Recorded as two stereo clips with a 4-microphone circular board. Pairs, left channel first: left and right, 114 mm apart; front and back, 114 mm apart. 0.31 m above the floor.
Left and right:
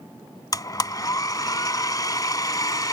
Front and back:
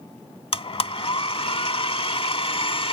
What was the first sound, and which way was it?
A blender, 35° left.